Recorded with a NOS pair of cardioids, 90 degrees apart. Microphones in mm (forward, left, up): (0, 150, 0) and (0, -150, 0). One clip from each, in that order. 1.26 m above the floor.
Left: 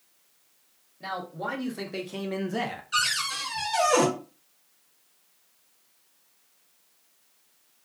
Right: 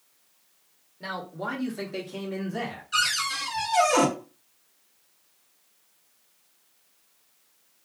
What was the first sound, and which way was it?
A man speaking, 15° right.